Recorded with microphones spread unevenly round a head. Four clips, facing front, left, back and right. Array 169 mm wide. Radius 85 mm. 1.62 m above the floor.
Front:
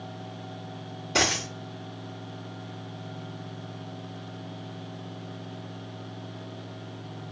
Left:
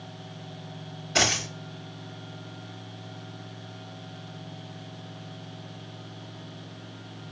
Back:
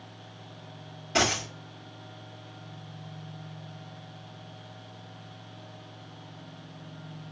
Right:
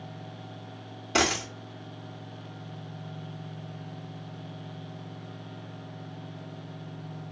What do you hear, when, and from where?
1.1 s a dropped coin: 95° right, 2 m